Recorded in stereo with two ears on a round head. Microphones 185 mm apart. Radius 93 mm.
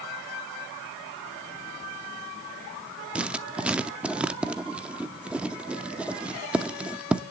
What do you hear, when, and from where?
3.1 s writing: 5° right (ahead or behind), 0.6 m